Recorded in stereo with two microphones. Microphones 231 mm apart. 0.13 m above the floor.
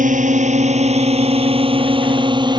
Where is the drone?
35° right (ahead or behind); by 2.6 s 20° right (ahead or behind).